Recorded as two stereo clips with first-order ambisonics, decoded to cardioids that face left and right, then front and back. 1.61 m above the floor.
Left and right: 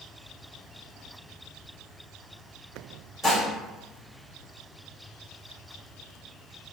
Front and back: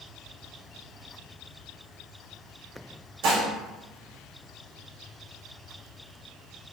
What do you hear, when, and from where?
3.2 s dishes clattering: 170° right, 1.6 m